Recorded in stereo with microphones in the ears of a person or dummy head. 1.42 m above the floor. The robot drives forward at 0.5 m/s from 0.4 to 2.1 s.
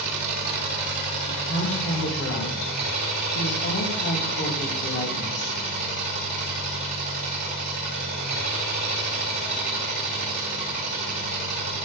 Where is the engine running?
50° right (ahead or behind), 1.3 m; by 11.9 s 40° right (ahead or behind), 1.6 m.